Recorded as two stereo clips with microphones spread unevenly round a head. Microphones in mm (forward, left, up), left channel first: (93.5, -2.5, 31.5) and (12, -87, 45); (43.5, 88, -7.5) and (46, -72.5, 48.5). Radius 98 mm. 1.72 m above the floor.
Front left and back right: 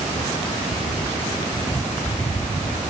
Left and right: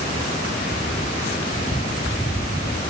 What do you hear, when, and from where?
Only background noise.